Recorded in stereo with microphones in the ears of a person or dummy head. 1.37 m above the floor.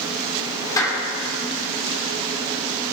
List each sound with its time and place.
0.8 s a clap: 20° left (ahead or behind), 4 m